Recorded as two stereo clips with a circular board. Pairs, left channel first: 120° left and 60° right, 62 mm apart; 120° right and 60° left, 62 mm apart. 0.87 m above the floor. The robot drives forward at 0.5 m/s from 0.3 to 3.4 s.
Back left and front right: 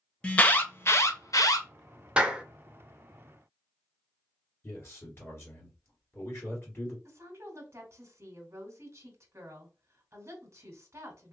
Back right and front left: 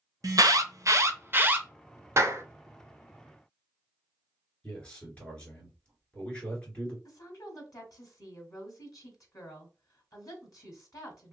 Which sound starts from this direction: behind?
A man speaking, at 4.6 s.